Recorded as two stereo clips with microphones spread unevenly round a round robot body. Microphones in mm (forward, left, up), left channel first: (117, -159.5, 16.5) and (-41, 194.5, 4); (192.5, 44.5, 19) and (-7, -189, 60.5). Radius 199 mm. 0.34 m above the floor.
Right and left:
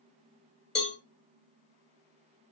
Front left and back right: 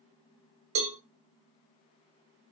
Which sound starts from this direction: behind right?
A cowbell, at 0.8 s.